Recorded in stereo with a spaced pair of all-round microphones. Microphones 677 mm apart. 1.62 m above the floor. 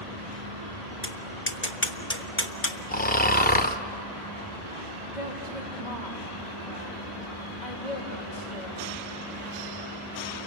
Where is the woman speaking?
85° left, 3.5 m.